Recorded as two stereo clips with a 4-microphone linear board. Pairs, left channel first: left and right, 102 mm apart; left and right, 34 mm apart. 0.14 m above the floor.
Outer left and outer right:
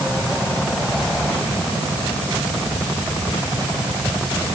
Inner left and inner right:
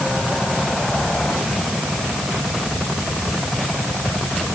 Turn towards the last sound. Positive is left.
No sound to turn to.